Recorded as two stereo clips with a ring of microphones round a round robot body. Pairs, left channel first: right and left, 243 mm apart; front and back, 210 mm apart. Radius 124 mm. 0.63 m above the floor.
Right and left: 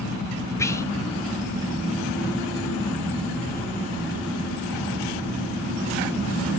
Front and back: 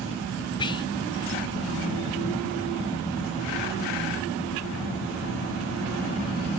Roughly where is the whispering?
Ahead right.